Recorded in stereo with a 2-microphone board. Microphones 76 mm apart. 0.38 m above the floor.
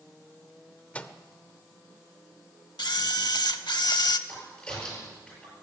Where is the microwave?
15° left (ahead or behind), 0.6 m.